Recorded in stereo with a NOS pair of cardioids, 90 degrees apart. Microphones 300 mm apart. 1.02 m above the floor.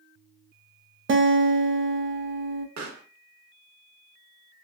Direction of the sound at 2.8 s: 60° right.